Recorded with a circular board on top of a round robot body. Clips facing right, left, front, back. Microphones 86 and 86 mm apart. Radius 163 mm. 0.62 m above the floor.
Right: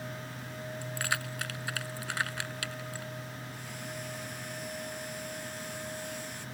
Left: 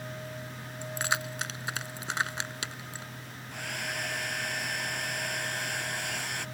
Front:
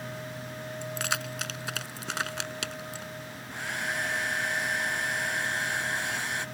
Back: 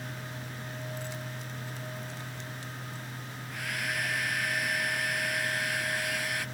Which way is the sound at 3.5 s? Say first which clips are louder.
Left 10 dB, front 2 dB; 65° left.